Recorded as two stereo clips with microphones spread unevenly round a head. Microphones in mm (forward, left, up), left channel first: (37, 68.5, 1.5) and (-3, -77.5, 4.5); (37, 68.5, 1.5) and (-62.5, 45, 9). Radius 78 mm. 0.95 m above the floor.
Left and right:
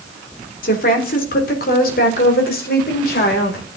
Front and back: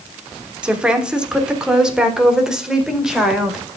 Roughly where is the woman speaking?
Left.